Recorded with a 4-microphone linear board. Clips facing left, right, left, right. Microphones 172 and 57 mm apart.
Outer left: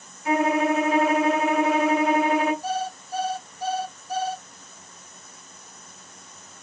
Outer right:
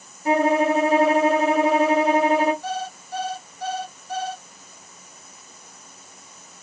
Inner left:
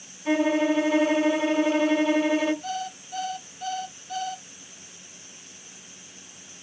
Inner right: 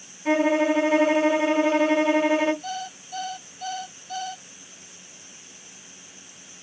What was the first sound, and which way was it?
A violin, 30° right (ahead or behind).